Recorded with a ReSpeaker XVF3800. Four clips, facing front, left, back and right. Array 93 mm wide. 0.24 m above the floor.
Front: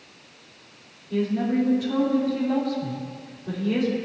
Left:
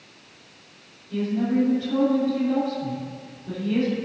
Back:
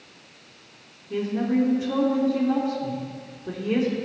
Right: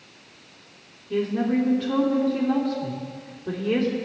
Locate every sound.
1.1 s a woman speaking: 115° right, 3 m